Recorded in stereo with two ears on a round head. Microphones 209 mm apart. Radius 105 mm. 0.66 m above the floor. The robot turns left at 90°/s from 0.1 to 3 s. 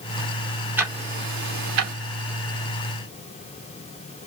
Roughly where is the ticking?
Centre.